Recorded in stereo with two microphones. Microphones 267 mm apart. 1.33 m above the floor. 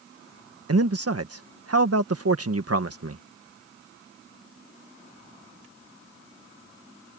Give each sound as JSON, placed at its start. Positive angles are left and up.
{"t": 0.7, "sound": "a man speaking", "side_deg": -60}